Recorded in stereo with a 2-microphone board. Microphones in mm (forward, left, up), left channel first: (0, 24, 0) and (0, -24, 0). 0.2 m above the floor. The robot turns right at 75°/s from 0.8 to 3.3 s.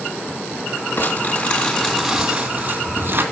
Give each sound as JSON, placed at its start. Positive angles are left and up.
{"t": 1.0, "sound": "crumpling", "azimuth_deg": 105, "distance_m": 2.0}